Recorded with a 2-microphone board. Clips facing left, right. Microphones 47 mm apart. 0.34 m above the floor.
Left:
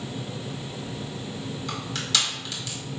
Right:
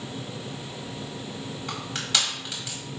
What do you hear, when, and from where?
1.7 s crushing: 25° right (ahead or behind), 1.7 m